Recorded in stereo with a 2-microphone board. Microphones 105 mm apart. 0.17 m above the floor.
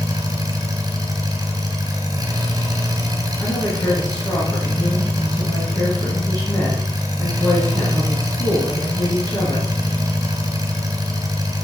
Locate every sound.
0.0 s an engine running: 35° right (ahead or behind), 2.5 m
3.4 s a woman speaking: 25° left (ahead or behind), 3 m